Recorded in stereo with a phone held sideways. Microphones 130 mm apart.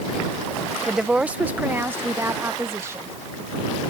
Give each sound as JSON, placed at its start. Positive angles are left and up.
{"t": 0.9, "sound": "a woman speaking", "side_deg": -5}